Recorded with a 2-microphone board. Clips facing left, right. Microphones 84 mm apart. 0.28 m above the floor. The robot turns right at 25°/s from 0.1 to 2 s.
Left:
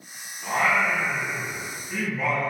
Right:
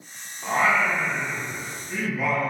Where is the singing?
25° right (ahead or behind), 1.0 m; by 2.5 s 10° right (ahead or behind), 1.0 m.